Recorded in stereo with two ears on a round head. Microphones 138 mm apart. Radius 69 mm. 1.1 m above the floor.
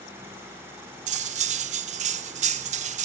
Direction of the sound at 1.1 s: 50° right (ahead or behind).